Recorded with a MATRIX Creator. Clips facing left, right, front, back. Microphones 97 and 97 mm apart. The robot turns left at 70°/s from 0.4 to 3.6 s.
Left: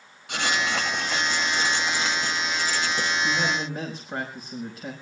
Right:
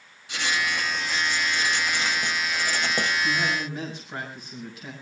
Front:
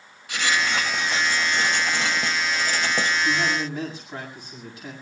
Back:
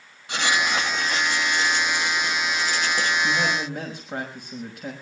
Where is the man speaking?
165° left, 6 m; by 4.9 s 140° left, 6 m.